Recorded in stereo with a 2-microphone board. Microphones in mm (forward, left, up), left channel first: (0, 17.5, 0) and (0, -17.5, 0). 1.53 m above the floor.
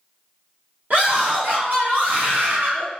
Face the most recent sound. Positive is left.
turn(degrees=-55)  # may be behind; listen again after turning